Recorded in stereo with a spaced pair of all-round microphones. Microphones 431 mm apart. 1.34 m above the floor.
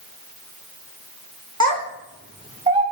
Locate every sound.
1.6 s a child speaking: 40° right (ahead or behind), 1.3 m; by 2.8 s 15° right (ahead or behind), 2.5 m